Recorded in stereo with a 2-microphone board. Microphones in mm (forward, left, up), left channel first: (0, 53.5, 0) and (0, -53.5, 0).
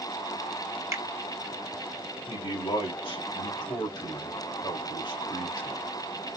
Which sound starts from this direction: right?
A finger snap, at 0.9 s.